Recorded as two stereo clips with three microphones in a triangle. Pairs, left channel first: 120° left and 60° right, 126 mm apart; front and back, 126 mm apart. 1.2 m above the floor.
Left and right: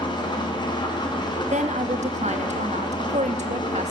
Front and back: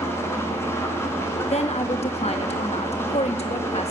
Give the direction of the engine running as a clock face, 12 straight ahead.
10 o'clock.